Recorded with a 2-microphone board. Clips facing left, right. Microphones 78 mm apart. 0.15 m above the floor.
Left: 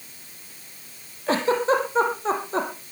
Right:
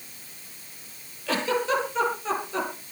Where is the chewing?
No chewing in this recording.